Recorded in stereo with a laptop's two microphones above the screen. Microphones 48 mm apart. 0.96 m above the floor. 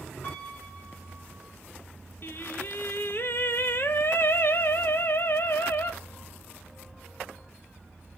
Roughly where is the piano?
Left.